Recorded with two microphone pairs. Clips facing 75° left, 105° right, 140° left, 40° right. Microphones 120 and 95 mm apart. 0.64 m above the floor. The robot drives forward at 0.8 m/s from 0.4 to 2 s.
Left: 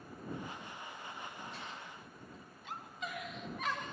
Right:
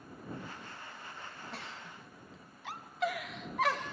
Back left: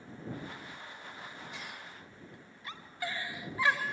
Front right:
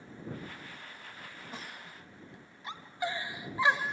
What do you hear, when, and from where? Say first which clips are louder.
1.5 s a giggle: right 1 dB, even; 85° right, 1.0 m; by 3.9 s 105° right, 1.0 m